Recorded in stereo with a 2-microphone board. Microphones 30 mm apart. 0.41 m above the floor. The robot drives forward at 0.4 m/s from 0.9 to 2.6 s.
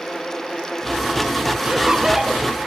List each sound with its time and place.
1.6 s laughter: 25° right (ahead or behind), 1.2 m; by 2.4 s 20° right (ahead or behind), 1.4 m